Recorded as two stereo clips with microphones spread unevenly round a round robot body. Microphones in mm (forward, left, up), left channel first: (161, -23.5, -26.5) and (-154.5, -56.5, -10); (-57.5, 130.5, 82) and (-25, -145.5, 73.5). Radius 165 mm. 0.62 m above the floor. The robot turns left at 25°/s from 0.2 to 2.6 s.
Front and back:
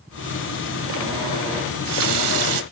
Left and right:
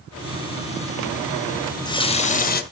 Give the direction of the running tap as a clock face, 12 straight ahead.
6 o'clock.